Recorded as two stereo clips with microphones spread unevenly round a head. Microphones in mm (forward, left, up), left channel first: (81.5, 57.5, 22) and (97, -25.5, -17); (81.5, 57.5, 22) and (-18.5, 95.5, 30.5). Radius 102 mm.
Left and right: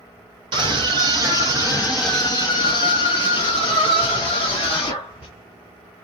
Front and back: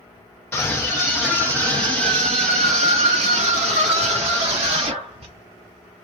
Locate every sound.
0.5 s a scream: 95° right, 1.1 m; by 5.3 s 130° left, 2 m